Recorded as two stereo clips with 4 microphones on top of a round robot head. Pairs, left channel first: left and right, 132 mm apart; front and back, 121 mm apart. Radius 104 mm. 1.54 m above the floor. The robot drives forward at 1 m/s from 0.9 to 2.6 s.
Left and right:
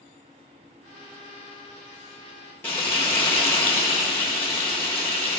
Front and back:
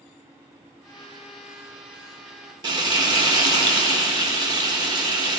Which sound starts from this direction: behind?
Frying, at 2.6 s.